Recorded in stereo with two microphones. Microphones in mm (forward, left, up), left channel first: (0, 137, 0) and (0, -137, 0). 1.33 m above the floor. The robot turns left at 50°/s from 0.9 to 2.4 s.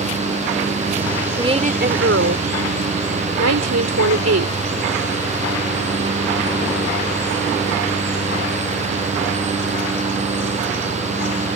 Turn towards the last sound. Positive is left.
turn(degrees=-65)